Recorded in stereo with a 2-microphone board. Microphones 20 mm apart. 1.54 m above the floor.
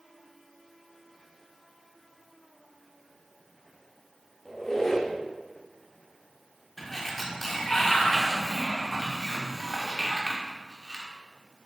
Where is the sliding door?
15° left (ahead or behind), 1.0 m.